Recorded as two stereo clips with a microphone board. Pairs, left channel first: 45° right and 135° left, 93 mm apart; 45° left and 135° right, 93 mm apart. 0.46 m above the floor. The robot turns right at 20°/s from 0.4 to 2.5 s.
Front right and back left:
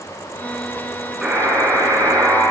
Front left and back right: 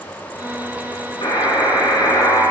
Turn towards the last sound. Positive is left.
turn(degrees=80)